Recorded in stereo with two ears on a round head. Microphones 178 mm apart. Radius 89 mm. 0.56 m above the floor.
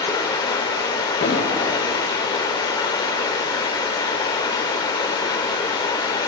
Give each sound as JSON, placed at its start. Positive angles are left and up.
{"t": 0.0, "sound": "running water", "side_deg": 20, "distance_m": 0.9}
{"t": 1.2, "sound": "an explosion", "side_deg": 50, "distance_m": 1.1}